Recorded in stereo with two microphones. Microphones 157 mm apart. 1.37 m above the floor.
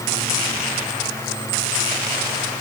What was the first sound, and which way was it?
Only background noise.